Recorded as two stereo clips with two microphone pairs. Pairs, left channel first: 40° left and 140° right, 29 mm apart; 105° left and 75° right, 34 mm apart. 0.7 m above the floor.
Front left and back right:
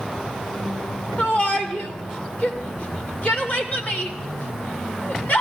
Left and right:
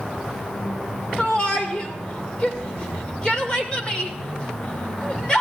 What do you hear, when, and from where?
1.2 s a shout: 45° left, 2 m